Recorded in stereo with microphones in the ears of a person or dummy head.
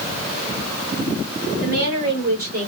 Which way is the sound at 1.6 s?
65° right (ahead or behind).